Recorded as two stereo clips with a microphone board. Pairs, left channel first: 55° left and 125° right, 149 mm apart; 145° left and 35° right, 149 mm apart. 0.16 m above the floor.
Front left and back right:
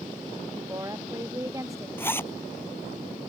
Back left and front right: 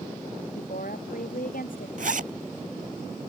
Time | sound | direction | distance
0.6 | a woman speaking | 165° left | ?
2.0 | a zipper | 20° right | ?